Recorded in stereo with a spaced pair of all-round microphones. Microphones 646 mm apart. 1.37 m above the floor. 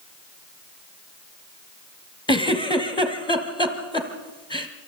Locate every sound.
2.3 s a giggle: 5° left (ahead or behind), 1.7 m